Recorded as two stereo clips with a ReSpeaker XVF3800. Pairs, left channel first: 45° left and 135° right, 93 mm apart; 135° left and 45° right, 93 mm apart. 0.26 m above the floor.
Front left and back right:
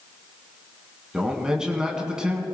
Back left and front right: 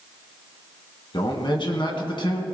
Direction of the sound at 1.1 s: 145° left.